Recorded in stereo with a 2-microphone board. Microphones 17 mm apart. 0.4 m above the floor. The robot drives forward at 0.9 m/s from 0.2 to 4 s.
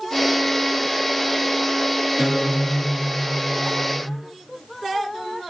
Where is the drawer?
I don't hear a drawer.